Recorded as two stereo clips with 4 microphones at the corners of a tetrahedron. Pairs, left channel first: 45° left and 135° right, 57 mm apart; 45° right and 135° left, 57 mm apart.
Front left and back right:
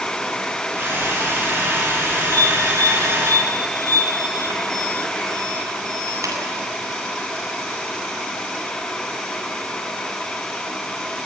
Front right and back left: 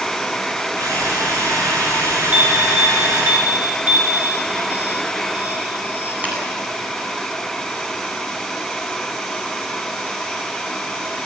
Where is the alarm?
160° right, 8.5 m.